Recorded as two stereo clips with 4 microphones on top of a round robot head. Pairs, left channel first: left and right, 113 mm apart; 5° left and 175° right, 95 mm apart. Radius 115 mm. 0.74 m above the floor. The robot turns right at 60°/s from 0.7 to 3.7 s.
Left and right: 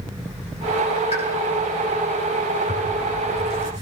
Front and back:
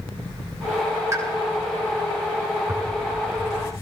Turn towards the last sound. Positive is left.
turn(degrees=-45)